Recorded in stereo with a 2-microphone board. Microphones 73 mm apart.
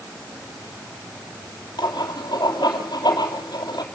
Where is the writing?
70° left (ahead or behind), 3 m.